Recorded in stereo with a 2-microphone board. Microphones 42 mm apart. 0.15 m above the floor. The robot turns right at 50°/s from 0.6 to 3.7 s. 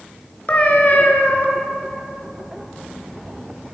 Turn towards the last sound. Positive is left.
turn(degrees=-160)